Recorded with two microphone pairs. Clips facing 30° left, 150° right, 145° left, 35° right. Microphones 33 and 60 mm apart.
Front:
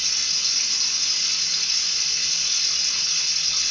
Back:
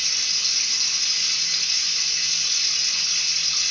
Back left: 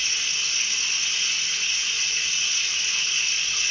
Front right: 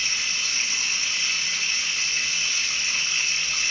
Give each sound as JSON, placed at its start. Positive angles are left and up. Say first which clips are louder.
{"t": 0.0, "sound": "running water", "louder": "back 1 dB, front right 1 dB", "azimuth_deg": -60, "distance_m": 2.5}